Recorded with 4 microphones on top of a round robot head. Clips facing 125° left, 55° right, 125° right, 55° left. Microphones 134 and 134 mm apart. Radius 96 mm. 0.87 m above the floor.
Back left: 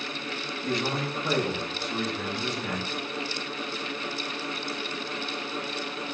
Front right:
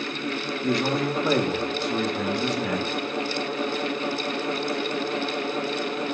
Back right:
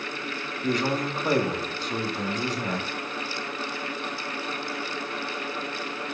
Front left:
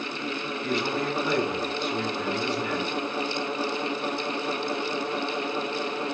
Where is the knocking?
I don't hear knocking.